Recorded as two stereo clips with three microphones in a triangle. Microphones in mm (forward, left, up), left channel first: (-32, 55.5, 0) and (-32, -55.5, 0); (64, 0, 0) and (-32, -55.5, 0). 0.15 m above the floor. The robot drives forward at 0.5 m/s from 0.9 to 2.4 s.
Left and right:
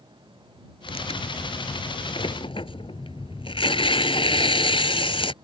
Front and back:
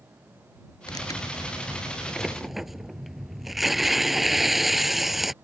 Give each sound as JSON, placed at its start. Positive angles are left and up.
{"t": 0.9, "sound": "tearing paper", "azimuth_deg": 75}